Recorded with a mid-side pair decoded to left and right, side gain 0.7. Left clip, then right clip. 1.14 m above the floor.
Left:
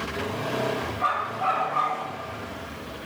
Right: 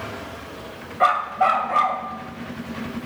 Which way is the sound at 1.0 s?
55° right.